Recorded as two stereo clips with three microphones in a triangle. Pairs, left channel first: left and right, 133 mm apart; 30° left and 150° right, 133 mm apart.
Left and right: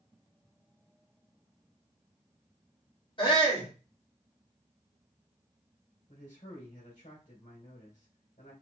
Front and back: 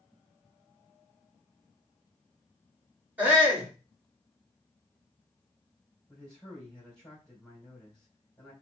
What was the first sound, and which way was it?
A shout, 135° left.